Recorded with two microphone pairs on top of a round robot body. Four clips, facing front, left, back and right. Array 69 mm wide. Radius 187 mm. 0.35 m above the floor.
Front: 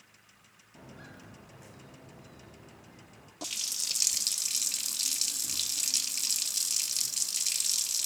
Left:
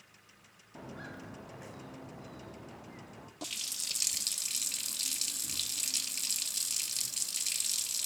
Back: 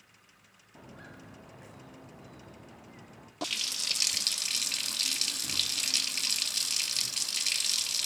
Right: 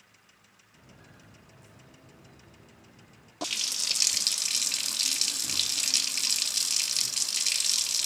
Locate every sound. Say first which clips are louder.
0.8 s footsteps: left 11 dB, even; 105° left, 4.5 m; by 3.3 s 125° left, 5.5 m
3.4 s a running tap: right 10 dB, back 6 dB; 115° right, 0.5 m